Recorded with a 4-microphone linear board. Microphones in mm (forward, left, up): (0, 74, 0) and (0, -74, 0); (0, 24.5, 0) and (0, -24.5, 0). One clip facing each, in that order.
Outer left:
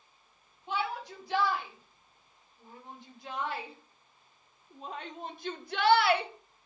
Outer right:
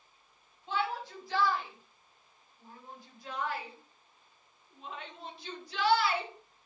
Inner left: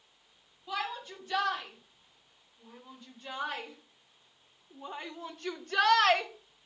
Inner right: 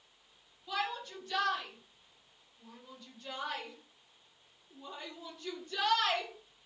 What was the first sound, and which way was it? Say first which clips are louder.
A shout: even, even; 15° left (ahead or behind).